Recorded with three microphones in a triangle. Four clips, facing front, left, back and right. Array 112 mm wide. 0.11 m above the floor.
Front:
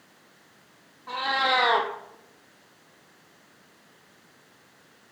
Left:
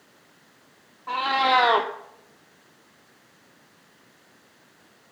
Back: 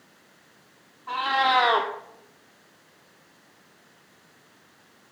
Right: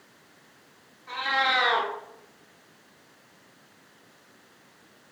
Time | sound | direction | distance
1.1 | a cat meowing | 80° left | 1.8 m